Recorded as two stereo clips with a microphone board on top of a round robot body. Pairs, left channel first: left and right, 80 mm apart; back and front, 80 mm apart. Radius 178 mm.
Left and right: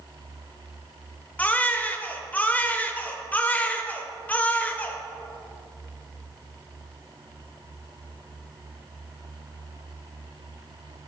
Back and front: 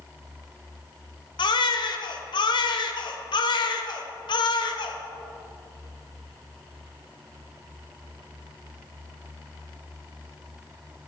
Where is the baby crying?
160° left, 1.4 m.